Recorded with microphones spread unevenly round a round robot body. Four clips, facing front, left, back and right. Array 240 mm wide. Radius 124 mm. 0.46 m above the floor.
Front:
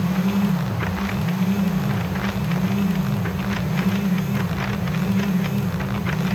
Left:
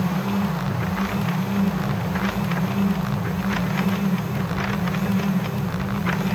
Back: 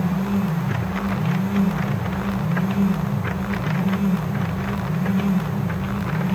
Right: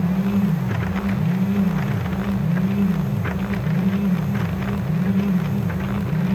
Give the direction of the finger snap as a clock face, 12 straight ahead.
I don't hear a finger snap.